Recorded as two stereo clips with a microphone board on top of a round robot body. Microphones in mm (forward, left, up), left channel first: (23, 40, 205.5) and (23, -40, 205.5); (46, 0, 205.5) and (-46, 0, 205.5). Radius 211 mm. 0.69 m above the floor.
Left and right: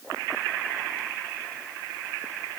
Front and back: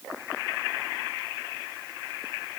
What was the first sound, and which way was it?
Only background noise.